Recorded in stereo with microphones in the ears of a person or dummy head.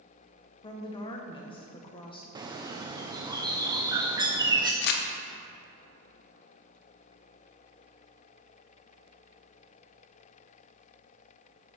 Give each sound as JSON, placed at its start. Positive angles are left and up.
{"t": 0.6, "sound": "a woman speaking", "side_deg": 30, "distance_m": 0.9}
{"t": 2.4, "sound": "a bird", "side_deg": -15, "distance_m": 0.5}
{"t": 4.8, "sound": "crumpling", "side_deg": 60, "distance_m": 0.8}